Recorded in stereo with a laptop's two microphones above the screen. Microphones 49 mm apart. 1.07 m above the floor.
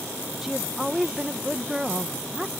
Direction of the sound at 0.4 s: 5° right (ahead or behind).